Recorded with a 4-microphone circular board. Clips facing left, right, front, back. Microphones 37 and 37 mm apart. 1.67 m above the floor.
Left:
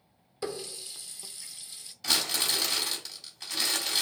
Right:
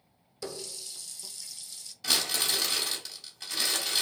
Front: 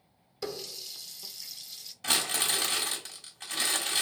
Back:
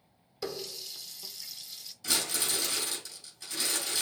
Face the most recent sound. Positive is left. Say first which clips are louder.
# even, front 3 dB
turn(degrees=-5)